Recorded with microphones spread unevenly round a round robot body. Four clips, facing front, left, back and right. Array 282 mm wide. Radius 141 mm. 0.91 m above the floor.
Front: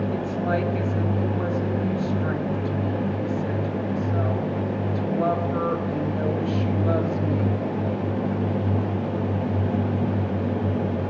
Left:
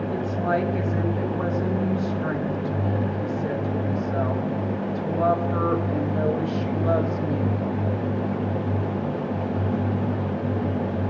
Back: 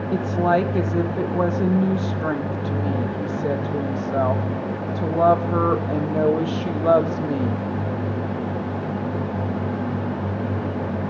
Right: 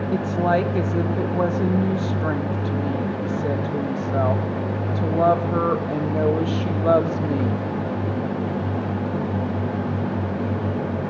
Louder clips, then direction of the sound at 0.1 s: Right 5 dB, back 5 dB; 145° right.